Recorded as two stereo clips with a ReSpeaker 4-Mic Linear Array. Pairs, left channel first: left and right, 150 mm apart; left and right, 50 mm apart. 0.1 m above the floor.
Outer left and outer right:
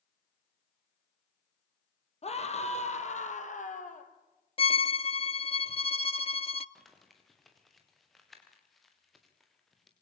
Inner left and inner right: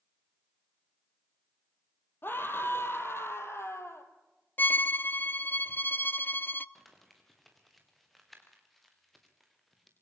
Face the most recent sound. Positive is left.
turn(degrees=0)  # may be behind; listen again after turning